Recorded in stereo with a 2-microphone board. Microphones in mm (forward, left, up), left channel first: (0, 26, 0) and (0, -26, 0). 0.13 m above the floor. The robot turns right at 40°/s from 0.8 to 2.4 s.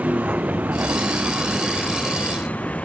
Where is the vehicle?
30° right (ahead or behind); by 2.9 s 25° left (ahead or behind).